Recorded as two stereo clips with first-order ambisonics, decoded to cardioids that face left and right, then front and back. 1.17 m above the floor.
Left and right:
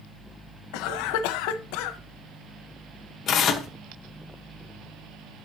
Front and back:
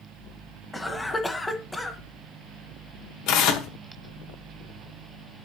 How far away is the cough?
About 0.8 m.